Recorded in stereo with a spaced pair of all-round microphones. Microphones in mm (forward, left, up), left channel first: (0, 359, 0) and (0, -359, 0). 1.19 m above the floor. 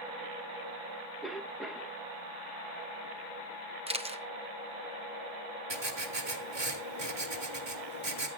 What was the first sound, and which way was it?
A cough, centre (ahead or behind).